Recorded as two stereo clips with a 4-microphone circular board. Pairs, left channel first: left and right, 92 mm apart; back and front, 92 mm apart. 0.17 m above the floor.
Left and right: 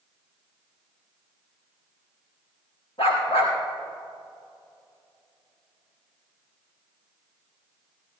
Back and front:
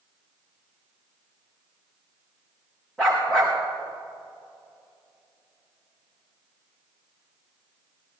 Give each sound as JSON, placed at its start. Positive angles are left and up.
{"t": 3.0, "sound": "a dog barking", "azimuth_deg": 100, "distance_m": 5.5}